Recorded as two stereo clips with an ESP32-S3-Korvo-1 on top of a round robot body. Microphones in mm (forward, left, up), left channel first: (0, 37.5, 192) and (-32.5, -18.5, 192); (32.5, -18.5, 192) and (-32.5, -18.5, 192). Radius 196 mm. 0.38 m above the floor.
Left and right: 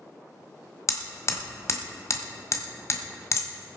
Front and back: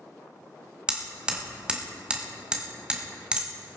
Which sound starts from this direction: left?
Hammering, at 0.9 s.